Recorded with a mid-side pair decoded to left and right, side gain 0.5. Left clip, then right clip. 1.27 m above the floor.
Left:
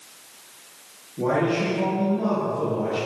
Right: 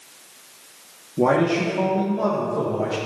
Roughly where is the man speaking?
Ahead right.